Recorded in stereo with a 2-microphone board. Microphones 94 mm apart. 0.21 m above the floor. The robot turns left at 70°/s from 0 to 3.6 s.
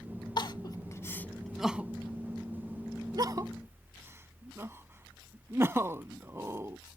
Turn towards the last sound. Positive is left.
turn(degrees=-25)  # may be behind; listen again after turning